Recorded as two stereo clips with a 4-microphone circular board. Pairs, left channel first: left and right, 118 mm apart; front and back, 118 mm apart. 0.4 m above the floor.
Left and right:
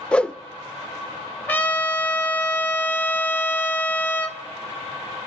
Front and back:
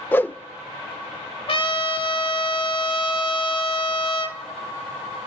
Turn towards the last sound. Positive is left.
turn(degrees=20)